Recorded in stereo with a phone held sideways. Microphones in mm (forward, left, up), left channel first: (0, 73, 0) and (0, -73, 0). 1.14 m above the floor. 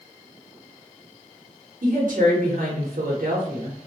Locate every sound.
1.8 s a woman speaking: 70° right (ahead or behind), 0.8 m